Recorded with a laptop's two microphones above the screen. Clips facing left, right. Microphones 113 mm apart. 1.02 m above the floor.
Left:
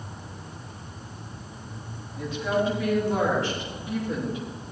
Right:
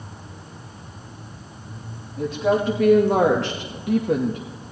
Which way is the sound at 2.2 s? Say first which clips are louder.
Right 5 dB; 40° right (ahead or behind).